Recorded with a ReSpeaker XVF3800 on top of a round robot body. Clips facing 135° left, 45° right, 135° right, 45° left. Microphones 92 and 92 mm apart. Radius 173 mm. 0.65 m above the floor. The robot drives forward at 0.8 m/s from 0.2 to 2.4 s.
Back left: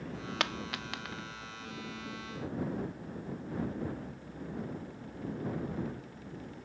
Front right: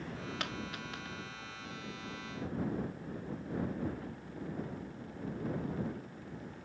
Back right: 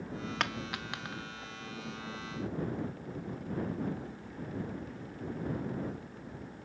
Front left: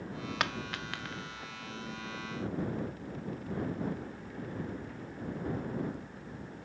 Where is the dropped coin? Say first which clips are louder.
Back left 4 dB, front left 2 dB; 130° left, 0.5 m; by 1.2 s 160° left, 1.1 m.